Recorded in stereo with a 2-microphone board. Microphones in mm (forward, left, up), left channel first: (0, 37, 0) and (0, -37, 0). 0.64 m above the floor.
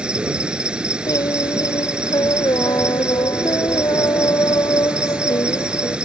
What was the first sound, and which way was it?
An insect, 10° right (ahead or behind).